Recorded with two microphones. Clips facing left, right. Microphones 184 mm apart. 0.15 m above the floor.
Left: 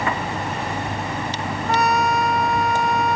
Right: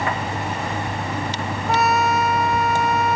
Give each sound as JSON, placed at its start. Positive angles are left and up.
{"t": 1.7, "sound": "a trumpet", "side_deg": 0}